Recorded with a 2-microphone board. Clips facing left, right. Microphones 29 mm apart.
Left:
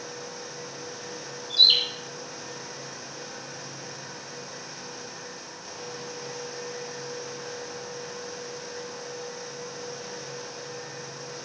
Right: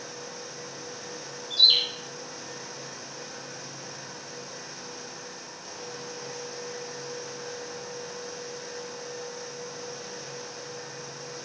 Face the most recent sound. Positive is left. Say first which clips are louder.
# left 1 dB
turn(degrees=45)  # may be behind; listen again after turning